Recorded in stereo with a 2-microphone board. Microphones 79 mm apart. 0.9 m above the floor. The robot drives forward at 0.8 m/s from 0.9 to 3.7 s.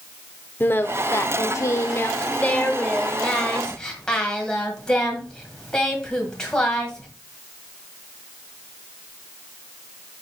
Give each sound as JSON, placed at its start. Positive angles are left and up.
{"t": 0.6, "sound": "singing", "side_deg": 30, "distance_m": 0.7}